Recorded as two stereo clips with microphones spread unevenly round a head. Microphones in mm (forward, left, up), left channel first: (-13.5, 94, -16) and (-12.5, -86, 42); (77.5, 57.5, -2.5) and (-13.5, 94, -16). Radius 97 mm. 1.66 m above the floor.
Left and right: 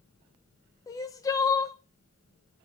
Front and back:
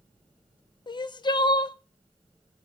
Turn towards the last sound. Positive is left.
turn(degrees=10)